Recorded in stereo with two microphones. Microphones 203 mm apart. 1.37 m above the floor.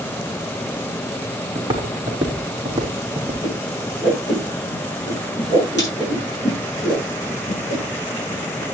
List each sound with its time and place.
1.6 s footsteps: 25° right (ahead or behind), 3.5 m; by 3.4 s 15° right (ahead or behind), 4 m
3.4 s a whoosh: 60° left (ahead or behind), 8 m